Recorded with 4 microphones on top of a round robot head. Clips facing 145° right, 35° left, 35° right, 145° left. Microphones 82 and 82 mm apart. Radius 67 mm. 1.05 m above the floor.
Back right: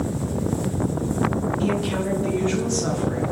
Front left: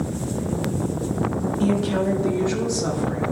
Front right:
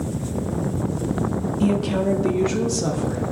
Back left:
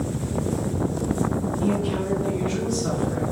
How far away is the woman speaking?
About 1.5 m.